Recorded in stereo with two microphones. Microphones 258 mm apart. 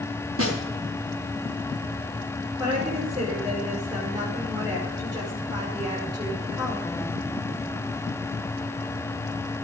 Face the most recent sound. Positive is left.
turn(degrees=-15)  # may be behind; listen again after turning